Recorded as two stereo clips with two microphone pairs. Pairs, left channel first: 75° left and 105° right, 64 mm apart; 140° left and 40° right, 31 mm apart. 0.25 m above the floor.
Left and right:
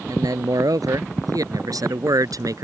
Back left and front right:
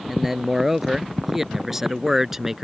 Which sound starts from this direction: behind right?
A man speaking, at 0.1 s.